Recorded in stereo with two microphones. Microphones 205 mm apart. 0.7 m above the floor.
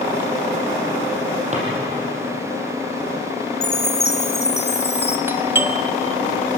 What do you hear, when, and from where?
1.5 s a drawer: 35° right (ahead or behind), 6.5 m
3.6 s a chime: 55° left (ahead or behind), 1.5 m
5.3 s a doorbell: 10° right (ahead or behind), 1.0 m